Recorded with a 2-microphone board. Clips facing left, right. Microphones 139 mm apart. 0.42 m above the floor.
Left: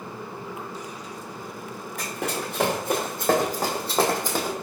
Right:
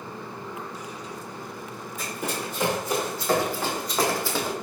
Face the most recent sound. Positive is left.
turn(degrees=5)  # may be behind; listen again after turning